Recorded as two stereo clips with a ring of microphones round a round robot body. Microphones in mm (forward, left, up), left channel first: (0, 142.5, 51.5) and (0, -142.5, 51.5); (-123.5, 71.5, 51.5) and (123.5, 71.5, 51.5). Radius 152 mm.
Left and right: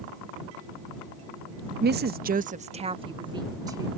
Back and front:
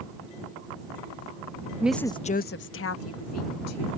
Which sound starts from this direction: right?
A woman speaking, at 1.8 s.